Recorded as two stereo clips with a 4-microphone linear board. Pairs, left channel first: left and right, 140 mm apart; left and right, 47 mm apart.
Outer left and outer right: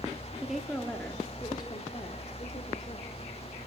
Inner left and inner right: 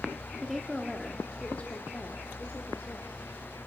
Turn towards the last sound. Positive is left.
turn(degrees=55)  # may be behind; listen again after turning